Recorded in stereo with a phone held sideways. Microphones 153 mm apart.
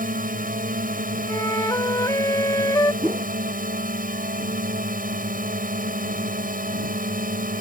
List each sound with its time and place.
0.0 s a drone: 75° right (ahead or behind)
1.3 s a flute: 25° left (ahead or behind)
3.0 s a whoosh: 15° right (ahead or behind)